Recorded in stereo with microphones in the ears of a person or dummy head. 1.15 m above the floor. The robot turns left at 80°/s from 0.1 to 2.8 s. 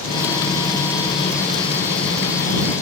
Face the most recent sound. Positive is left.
No sound to turn to.